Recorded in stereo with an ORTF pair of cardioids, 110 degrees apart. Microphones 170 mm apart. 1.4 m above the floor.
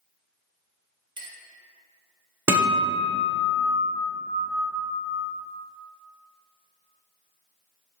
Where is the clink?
25° right, 0.8 m.